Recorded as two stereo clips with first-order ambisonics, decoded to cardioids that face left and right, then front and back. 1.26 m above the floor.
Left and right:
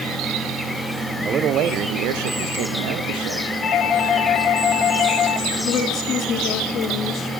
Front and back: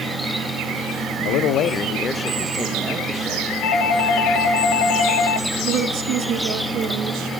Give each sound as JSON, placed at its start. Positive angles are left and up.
{"t": 1.2, "sound": "a man speaking", "azimuth_deg": -25, "distance_m": 0.6}
{"t": 3.6, "sound": "a doorbell", "azimuth_deg": 30, "distance_m": 1.8}
{"t": 5.6, "sound": "a woman speaking", "azimuth_deg": 140, "distance_m": 2.5}